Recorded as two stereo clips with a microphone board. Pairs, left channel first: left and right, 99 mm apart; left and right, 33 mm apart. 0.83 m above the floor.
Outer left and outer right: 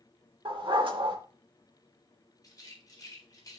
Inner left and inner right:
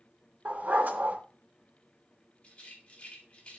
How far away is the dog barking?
About 2.0 m.